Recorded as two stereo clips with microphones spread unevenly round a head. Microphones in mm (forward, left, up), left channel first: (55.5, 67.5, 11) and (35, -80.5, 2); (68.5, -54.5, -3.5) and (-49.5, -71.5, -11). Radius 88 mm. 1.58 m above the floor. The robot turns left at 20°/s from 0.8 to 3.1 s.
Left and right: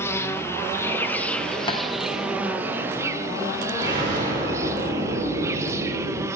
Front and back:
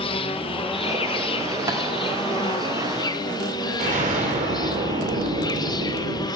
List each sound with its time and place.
0.0 s an insect: 15° left, 0.9 m; by 6.4 s 30° right, 0.9 m
1.7 s tapping: 130° left, 1.3 m; by 1.8 s 125° left, 1.3 m
3.8 s an explosion: 165° right, 3 m